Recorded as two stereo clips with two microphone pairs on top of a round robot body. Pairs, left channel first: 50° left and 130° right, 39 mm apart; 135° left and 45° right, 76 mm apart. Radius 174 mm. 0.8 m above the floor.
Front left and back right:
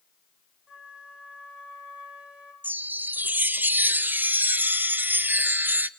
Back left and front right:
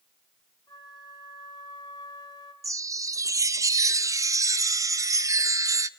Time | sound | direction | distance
0.7 | a flute | 170° left | 2.5 m
2.6 | a chime | 90° right | 0.8 m